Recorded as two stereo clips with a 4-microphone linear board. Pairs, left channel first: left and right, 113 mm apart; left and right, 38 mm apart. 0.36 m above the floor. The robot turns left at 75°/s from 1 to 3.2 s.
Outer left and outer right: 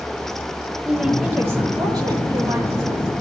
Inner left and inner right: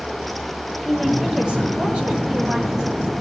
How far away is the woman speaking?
About 0.9 m.